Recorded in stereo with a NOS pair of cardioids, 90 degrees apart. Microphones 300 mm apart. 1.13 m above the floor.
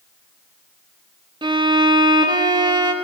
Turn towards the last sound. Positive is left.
turn(degrees=-15)